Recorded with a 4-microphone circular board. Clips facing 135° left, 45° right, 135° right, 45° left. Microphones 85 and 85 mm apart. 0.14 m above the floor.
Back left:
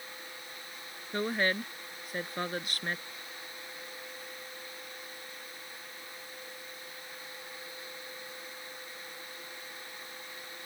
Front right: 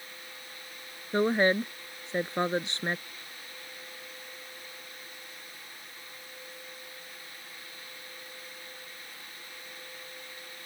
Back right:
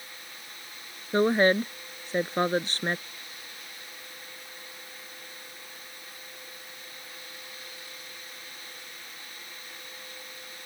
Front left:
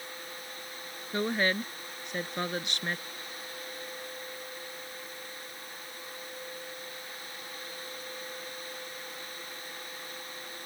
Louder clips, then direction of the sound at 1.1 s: Front right 6 dB, back right 8 dB; 95° right.